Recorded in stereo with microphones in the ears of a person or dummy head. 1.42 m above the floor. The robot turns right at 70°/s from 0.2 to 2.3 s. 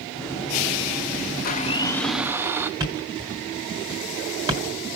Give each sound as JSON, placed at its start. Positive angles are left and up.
{"t": 1.4, "sound": "a blender", "azimuth_deg": 130, "distance_m": 0.6}
{"t": 2.8, "sound": "a thud", "side_deg": -15, "distance_m": 1.6}